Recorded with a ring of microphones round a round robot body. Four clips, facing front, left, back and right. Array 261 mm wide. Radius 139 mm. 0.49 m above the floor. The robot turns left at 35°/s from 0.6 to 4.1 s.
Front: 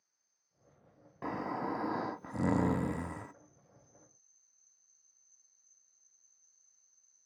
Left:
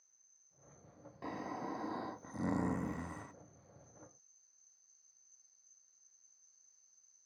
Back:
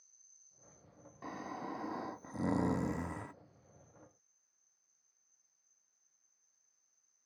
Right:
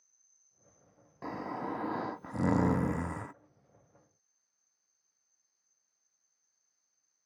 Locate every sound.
0.0 s an insect: straight behind; by 7.3 s 55° left
1.2 s snoring: 20° right; by 3.3 s 95° right